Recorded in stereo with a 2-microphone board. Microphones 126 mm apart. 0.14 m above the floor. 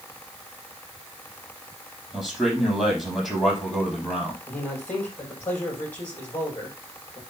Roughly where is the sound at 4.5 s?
Centre.